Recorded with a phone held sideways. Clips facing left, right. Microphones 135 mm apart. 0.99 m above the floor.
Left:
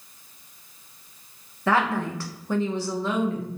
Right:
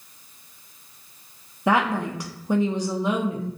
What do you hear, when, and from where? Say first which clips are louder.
1.7 s a woman speaking: right 1 dB; 15° right (ahead or behind), 0.6 m